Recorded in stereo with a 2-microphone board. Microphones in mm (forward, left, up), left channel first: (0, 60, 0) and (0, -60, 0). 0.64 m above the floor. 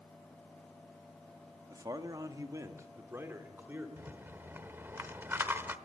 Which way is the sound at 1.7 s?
30° right (ahead or behind).